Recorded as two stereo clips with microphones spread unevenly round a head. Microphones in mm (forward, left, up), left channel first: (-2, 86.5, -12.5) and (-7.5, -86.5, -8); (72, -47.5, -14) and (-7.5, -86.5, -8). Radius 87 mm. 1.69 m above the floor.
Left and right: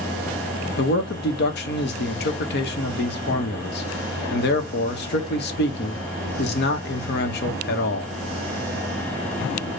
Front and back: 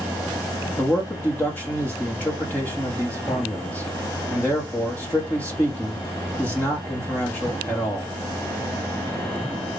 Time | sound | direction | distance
0.8 | a man speaking | 105° left | 0.8 m